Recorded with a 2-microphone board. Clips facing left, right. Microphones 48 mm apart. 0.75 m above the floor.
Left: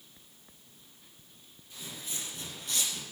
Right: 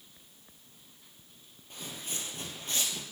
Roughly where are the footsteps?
Right.